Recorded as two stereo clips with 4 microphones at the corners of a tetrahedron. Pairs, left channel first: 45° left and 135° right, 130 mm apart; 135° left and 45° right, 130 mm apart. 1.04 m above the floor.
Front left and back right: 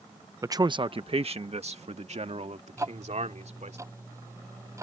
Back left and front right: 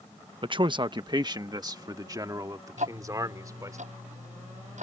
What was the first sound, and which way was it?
A man speaking, 75° right.